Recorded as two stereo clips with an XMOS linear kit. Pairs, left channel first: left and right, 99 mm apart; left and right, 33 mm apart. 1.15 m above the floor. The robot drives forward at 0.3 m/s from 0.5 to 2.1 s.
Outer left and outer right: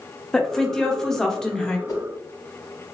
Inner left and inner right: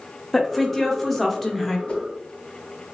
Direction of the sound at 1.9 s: 35° left (ahead or behind).